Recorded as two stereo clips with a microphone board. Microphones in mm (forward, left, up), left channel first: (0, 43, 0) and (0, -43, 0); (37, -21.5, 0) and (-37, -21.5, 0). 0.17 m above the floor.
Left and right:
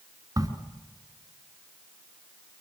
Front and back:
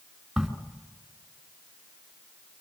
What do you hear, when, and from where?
0.4 s a crack: 95° right, 2 m